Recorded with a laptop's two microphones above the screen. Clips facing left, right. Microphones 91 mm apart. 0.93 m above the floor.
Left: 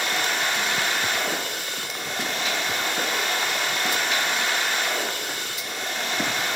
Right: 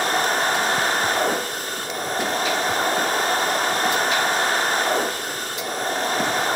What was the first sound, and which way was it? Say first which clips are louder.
A machine running: right 5 dB; 40° right (ahead or behind).